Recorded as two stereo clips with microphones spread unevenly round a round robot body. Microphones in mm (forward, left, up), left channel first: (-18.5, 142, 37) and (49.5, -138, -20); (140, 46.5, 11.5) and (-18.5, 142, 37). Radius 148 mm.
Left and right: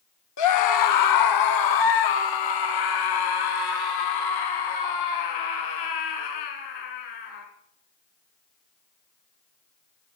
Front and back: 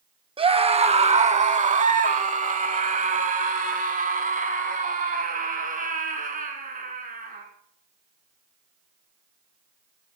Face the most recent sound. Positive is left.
turn(degrees=105)